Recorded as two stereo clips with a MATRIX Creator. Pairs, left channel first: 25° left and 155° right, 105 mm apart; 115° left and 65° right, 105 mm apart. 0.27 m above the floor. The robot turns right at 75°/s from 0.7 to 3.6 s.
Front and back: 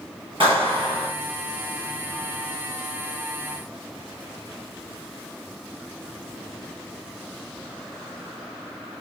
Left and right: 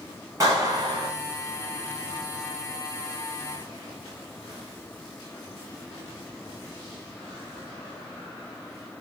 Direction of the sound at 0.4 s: 120° right.